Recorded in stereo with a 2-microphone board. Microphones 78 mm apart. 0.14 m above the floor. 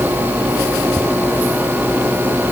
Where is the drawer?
I don't hear a drawer.